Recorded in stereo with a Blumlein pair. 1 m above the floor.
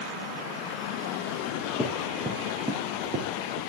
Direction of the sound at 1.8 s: 10° left.